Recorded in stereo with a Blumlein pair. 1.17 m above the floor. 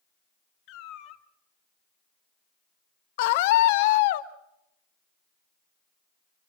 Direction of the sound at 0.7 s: 40° left.